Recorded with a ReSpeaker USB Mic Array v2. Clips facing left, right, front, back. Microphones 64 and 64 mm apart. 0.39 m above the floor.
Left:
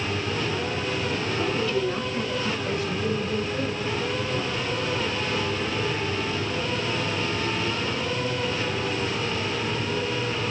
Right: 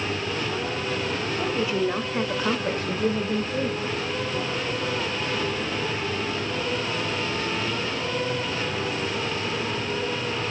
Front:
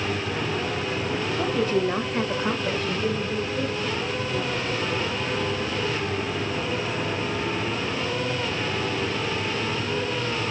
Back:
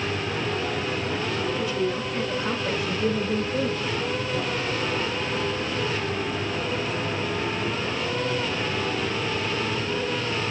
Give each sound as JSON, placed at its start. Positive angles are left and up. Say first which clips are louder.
{"t": 1.4, "sound": "a woman speaking", "louder": "right 1 dB, front 5 dB", "azimuth_deg": -20, "distance_m": 2.0}